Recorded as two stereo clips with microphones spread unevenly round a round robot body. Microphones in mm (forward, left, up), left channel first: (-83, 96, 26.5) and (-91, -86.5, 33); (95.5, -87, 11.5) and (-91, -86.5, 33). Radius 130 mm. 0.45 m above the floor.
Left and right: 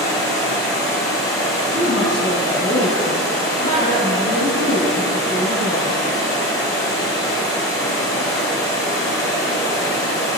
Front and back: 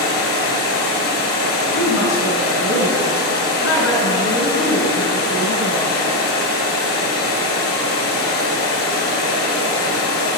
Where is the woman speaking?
5° left, 4 m.